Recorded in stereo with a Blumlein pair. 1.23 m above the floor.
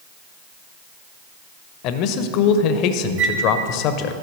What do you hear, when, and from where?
1.8 s a man speaking: 40° left, 0.8 m
3.2 s a flute: 40° right, 1.6 m